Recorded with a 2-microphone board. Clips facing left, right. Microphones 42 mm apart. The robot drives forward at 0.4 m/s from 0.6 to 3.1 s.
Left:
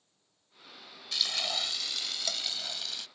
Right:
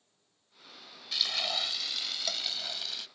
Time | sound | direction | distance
1.1 | frying | 5° right (ahead or behind) | ?